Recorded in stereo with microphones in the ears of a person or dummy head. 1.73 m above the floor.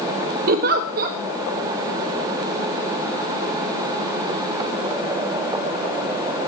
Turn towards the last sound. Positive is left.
turn(degrees=-45)  # may be behind; listen again after turning